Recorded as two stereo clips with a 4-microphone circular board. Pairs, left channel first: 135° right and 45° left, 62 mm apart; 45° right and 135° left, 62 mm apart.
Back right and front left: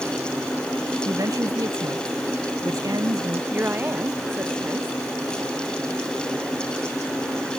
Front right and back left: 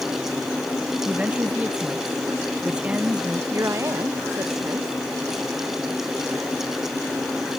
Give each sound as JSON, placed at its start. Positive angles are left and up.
{"t": 1.1, "sound": "a man speaking", "azimuth_deg": 65}
{"t": 3.5, "sound": "a woman speaking", "azimuth_deg": 95}